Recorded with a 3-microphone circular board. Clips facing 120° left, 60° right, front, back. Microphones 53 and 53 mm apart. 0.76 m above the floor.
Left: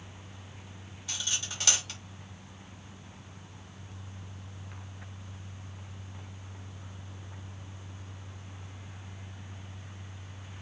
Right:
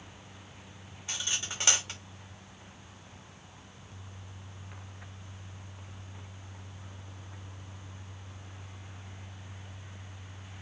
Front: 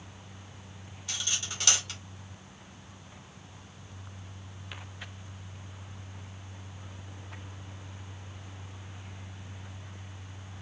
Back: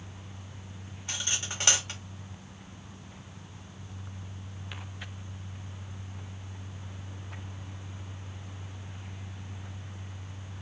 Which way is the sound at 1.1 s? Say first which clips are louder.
Right 1 dB, back 1 dB; 120° right.